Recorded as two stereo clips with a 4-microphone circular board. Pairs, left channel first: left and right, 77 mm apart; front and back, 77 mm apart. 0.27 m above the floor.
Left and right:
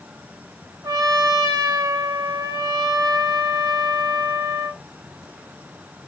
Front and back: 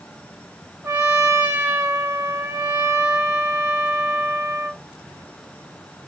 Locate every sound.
0.8 s a trumpet: 125° right, 0.7 m